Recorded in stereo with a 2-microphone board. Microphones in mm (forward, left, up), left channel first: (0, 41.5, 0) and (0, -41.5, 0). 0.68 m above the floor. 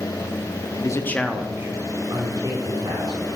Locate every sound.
0.8 s a man speaking: 45° left (ahead or behind), 0.9 m; by 3.2 s 60° right (ahead or behind), 3 m